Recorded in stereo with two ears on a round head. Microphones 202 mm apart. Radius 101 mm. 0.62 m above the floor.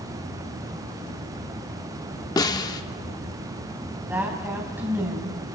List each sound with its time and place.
2.4 s a snare drum: 20° left (ahead or behind), 0.9 m
4.1 s a woman speaking: 10° right (ahead or behind), 3.5 m